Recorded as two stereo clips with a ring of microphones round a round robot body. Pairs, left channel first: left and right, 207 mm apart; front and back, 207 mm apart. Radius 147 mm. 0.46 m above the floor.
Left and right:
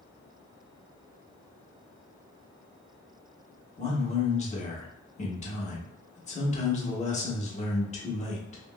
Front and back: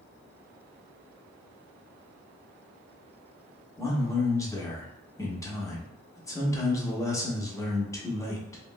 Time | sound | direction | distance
3.8 | a man speaking | 65° left | 0.9 m